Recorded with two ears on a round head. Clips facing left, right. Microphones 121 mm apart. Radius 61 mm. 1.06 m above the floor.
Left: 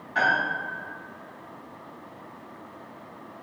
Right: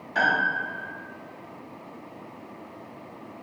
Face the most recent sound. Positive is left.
turn(degrees=-50)  # may be behind; listen again after turning